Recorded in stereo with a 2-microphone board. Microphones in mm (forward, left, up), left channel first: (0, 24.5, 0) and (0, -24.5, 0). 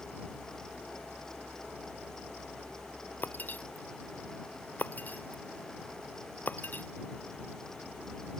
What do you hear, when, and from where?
3.2 s breaking glass: 35° left (ahead or behind)